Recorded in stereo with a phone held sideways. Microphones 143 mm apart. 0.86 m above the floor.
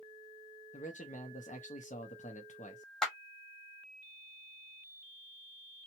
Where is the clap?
5° left (ahead or behind), 1.2 m.